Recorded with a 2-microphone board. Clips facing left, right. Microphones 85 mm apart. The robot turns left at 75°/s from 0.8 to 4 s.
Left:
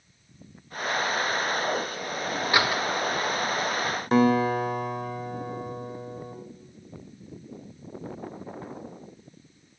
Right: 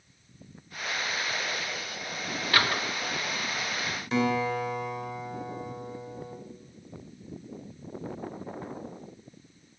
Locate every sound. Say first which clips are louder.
2.5 s a door slam: left 2 dB; 20° left (ahead or behind), 1.5 m; by 2.8 s 5° right (ahead or behind), 1.5 m
4.1 s a guitar: left 6 dB; 45° left (ahead or behind), 1.7 m